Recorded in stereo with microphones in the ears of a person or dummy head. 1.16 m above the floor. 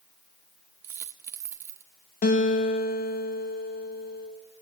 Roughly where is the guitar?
Left.